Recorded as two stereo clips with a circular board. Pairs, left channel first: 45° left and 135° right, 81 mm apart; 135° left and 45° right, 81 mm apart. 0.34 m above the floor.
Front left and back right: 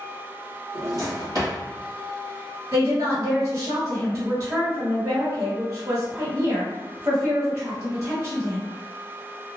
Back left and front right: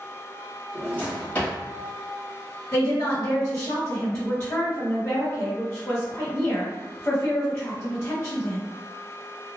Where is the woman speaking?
160° right, 1.4 m.